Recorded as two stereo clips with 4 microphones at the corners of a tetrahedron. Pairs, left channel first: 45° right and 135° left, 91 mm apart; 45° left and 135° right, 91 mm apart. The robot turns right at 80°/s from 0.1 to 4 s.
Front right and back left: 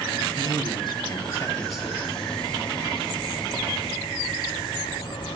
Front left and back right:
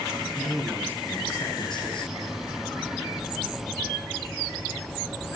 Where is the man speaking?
65° right, 3 m; by 2.1 s 75° left, 3 m.